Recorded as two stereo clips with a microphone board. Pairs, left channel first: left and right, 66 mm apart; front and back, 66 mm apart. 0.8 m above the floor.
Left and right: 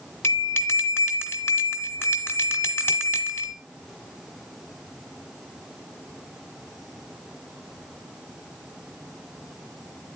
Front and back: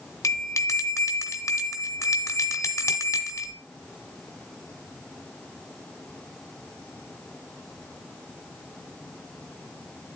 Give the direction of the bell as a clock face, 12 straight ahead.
11 o'clock.